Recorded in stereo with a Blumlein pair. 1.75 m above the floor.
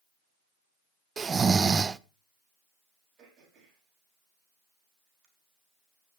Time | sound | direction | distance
1.2 | snoring | 15° right | 0.6 m
3.2 | throat clearing | 30° right | 5 m